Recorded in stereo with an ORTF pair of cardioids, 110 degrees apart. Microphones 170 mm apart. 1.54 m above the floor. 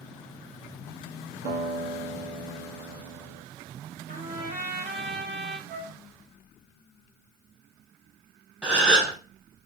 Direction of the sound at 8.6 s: 5° right.